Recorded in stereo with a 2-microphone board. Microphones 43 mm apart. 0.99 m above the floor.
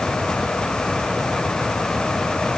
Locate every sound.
Only background noise.